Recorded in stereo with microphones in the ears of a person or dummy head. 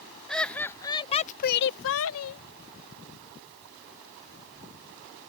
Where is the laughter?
5° left (ahead or behind); by 2.4 s 75° left (ahead or behind).